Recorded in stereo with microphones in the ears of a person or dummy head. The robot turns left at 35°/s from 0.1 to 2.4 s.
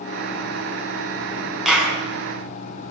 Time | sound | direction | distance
1.6 | a clap | centre (ahead or behind) | 8.5 m